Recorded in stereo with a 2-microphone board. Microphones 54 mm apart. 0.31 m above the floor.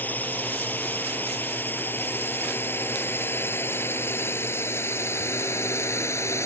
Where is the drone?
30° left (ahead or behind); by 6.5 s 55° left (ahead or behind).